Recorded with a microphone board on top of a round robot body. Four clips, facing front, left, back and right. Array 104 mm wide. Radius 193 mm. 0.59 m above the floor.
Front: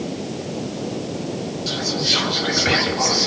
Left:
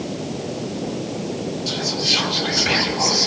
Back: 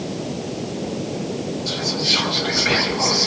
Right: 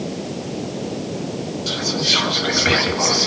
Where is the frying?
No frying in this recording.